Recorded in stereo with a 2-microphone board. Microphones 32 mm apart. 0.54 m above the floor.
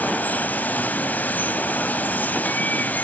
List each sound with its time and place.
0.0 s running water: 70° left (ahead or behind), 1.1 m